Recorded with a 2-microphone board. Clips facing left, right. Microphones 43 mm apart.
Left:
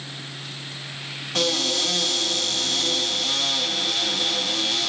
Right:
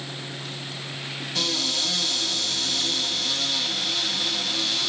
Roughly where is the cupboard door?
Left.